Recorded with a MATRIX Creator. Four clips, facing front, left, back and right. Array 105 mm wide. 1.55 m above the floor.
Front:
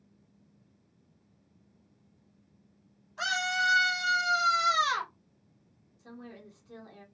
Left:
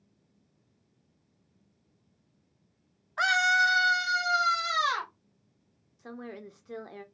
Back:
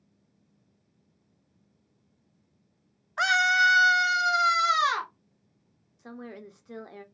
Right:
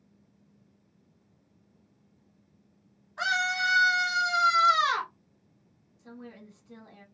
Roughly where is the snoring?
I don't hear snoring.